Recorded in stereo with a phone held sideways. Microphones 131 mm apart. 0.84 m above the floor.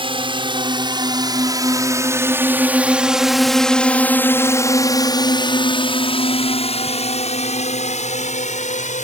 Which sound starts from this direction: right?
A drone, at 0.0 s.